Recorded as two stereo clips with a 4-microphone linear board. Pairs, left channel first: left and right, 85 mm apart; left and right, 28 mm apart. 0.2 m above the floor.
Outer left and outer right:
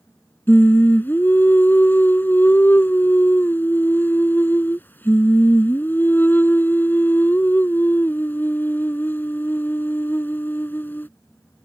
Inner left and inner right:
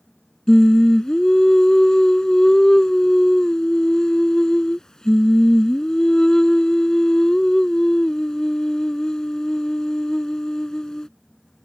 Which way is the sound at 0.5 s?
25° left (ahead or behind).